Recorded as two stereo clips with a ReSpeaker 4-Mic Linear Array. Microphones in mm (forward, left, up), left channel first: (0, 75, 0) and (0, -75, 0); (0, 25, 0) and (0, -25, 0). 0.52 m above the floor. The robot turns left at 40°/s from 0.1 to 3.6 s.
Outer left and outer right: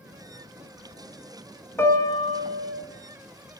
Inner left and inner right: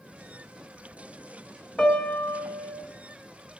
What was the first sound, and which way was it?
A piano, 160° left.